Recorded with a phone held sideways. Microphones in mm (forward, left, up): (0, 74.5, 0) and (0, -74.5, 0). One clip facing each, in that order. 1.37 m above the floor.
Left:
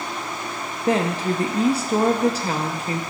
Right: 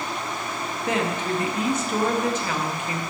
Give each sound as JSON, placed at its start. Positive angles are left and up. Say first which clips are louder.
{"t": 0.9, "sound": "a woman speaking", "louder": "left 4 dB", "side_deg": 35, "distance_m": 0.6}